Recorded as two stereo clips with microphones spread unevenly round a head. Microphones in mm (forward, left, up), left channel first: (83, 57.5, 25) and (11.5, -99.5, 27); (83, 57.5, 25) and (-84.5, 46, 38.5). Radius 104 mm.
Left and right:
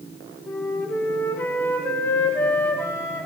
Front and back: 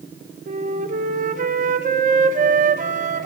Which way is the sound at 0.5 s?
145° left.